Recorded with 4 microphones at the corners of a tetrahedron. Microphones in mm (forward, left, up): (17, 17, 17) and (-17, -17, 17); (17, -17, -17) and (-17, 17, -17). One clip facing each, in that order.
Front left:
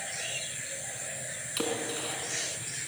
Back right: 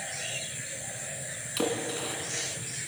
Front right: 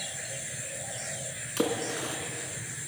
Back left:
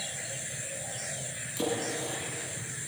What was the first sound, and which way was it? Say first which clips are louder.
A splash: back right 3 dB, front right 2 dB; 45° right.